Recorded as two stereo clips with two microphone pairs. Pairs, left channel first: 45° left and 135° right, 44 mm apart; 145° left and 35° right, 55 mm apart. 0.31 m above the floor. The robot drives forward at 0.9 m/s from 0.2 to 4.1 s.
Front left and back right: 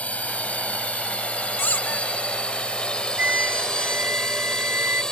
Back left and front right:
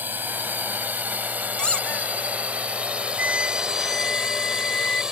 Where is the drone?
5° left; by 5.1 s 10° left.